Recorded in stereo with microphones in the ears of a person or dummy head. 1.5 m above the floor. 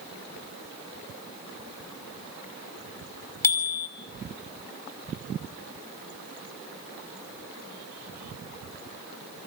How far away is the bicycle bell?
About 3 m.